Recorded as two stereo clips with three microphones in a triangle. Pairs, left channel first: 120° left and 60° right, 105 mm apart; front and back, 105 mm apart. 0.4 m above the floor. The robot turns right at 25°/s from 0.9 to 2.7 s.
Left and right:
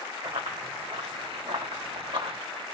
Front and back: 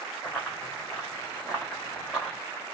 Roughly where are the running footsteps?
Right.